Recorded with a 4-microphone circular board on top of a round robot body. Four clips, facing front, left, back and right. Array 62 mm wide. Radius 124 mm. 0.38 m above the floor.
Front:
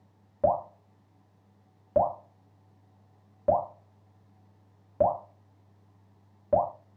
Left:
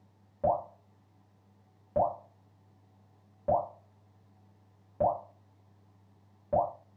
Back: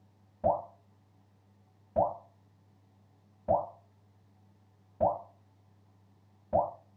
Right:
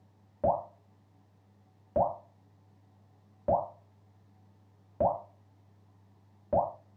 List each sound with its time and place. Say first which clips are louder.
0.4 s dripping: even, front 4 dB; 10° right, 1.5 m